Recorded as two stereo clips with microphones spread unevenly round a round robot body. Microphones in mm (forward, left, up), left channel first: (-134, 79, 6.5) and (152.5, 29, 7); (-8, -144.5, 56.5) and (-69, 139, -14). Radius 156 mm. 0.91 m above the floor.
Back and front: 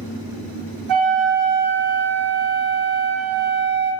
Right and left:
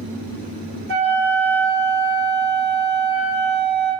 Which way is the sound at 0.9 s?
40° left.